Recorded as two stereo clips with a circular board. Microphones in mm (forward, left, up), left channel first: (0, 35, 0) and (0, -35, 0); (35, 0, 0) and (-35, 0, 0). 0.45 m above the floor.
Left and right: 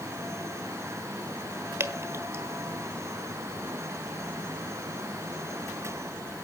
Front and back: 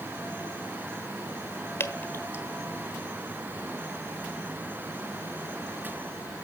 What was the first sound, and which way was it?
Dripping, 50° right.